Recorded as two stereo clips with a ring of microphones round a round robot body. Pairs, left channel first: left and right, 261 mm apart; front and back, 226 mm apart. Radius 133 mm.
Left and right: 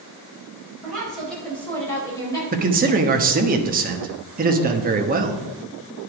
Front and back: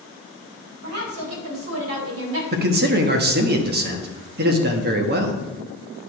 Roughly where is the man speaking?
Behind right.